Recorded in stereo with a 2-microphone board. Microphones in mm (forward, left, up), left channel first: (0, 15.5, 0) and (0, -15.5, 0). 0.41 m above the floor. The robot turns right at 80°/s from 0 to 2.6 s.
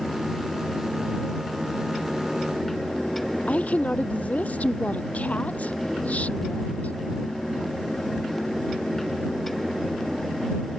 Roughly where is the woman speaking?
Left.